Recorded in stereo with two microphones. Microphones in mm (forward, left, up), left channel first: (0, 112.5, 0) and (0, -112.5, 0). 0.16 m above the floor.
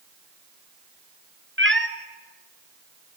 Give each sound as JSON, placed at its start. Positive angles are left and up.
{"t": 1.6, "sound": "a cat meowing", "side_deg": -60, "distance_m": 1.1}